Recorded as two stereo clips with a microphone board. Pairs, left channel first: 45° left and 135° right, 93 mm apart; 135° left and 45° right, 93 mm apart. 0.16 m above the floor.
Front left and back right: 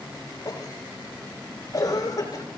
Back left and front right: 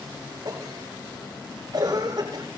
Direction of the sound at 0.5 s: 5° right.